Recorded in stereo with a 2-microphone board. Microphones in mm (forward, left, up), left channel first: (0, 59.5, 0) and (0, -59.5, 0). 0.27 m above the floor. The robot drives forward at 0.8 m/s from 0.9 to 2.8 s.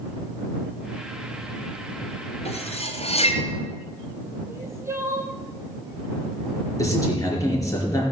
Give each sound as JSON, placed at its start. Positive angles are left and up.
{"t": 2.5, "sound": "cutlery clinking", "side_deg": 70, "distance_m": 2.5}
{"t": 4.5, "sound": "crying", "side_deg": -25, "distance_m": 2.0}
{"t": 6.8, "sound": "a man speaking", "side_deg": 30, "distance_m": 4.5}